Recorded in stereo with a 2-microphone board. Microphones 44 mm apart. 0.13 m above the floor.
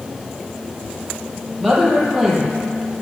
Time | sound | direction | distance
1.6 | a woman speaking | 5° right (ahead or behind) | 4.5 m